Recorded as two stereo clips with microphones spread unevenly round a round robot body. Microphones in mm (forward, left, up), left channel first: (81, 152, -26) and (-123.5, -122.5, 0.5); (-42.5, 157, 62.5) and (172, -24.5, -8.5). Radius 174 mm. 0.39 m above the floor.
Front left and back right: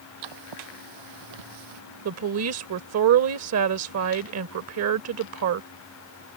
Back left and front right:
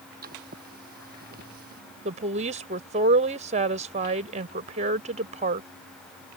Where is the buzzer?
I don't hear a buzzer.